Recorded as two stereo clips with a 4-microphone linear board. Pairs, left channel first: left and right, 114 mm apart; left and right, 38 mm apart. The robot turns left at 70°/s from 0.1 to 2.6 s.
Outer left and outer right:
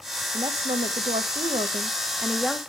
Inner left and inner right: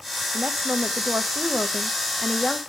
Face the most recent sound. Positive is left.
turn(degrees=170)